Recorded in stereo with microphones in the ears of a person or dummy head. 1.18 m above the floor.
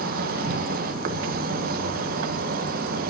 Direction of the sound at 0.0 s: 55° right (ahead or behind).